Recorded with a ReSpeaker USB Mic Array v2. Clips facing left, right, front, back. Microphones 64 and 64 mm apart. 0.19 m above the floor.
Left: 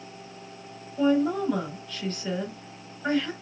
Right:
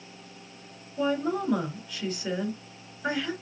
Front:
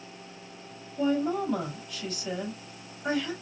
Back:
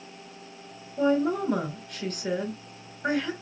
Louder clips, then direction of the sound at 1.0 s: Left 4 dB, back 3 dB; 165° right.